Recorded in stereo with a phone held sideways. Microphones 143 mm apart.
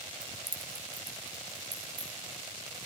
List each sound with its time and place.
0.2 s keys jangling: 65° right (ahead or behind), 0.9 m; by 2.1 s 35° right (ahead or behind), 3 m